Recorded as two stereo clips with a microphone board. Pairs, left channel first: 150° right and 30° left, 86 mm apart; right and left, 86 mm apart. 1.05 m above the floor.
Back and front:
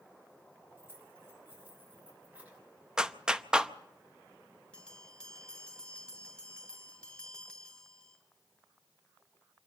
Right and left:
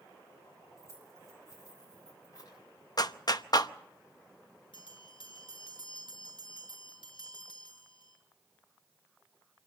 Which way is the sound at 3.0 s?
50° right.